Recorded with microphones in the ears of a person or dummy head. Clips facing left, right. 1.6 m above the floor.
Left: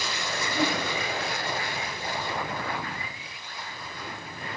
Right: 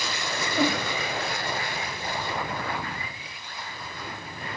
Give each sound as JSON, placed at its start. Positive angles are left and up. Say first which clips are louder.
{"t": 0.5, "sound": "a whoosh", "louder": "right 3 dB", "side_deg": -70, "distance_m": 2.5}